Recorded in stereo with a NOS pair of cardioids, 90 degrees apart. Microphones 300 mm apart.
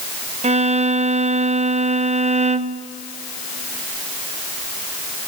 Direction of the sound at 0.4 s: 25° right.